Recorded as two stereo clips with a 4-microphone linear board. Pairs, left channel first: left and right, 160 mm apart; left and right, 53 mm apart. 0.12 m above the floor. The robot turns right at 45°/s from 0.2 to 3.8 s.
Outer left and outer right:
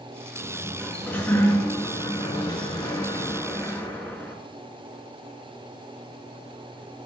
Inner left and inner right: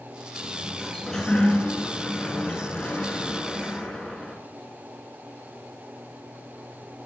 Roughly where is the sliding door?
Centre.